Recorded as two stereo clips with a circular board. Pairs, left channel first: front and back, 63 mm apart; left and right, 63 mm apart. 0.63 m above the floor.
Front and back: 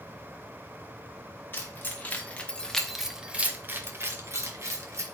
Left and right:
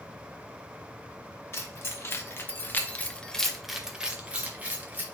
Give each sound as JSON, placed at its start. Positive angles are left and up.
{"t": 1.5, "sound": "keys jangling", "azimuth_deg": 50, "distance_m": 1.1}